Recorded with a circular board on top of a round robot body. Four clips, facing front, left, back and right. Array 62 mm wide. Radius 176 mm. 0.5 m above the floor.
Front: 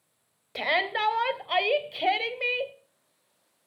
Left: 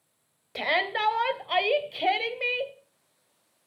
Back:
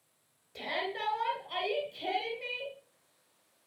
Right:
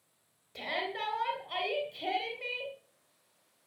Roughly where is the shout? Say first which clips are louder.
Left 9 dB, front 9 dB; ahead left.